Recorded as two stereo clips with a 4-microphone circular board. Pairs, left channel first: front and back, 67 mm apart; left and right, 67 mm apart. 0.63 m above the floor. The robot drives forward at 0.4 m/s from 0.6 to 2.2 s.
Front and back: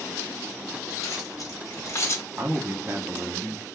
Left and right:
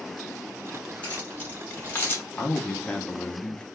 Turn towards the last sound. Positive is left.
turn(degrees=155)